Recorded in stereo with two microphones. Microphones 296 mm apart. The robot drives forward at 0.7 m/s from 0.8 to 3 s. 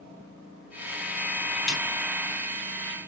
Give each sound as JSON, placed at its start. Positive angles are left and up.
{"t": 1.7, "sound": "a snare drum", "side_deg": 65, "distance_m": 2.5}